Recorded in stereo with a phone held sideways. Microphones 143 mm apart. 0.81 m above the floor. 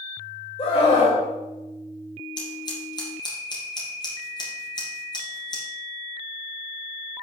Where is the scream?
45° left (ahead or behind), 3.5 m.